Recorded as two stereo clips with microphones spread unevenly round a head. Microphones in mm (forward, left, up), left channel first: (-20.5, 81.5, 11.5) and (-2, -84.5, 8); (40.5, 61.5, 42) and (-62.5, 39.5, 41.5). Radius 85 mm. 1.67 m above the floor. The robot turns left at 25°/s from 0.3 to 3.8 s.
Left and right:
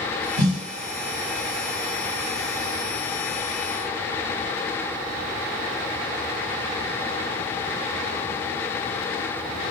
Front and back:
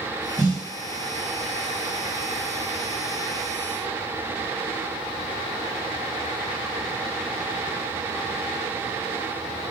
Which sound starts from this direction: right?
A snare drum, at 0.4 s.